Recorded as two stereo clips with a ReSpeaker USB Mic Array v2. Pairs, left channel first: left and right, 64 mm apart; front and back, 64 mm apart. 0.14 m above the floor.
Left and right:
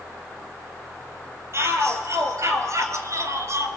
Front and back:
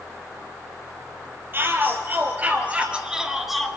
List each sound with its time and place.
1.5 s a shout: 130° right, 3 m; by 3.7 s 90° right, 1.5 m